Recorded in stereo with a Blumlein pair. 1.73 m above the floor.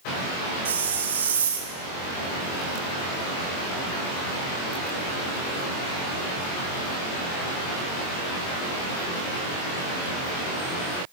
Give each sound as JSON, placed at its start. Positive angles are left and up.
{"t": 0.7, "sound": "a hiss", "azimuth_deg": -70, "distance_m": 1.0}